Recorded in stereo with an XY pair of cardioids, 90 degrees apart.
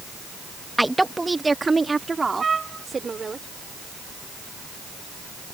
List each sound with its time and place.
0.8 s a woman speaking: 5° right; by 3.4 s 35° right
2.4 s a trumpet: 35° right